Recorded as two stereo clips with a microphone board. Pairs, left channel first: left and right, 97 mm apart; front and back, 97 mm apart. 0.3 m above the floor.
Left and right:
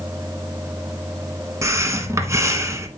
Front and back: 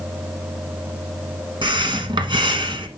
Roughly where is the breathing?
Behind right.